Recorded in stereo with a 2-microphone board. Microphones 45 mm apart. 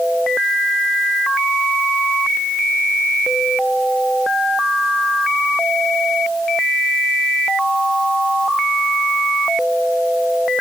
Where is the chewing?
No chewing in this recording.